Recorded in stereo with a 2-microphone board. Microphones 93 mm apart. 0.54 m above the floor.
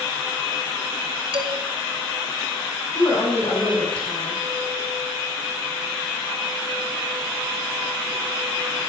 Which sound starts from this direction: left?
A woman speaking, at 3.0 s.